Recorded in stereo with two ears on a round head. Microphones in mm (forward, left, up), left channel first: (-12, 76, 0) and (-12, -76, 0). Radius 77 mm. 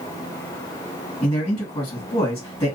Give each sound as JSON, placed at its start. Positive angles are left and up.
{"t": 1.2, "sound": "a man speaking", "side_deg": 20, "distance_m": 1.6}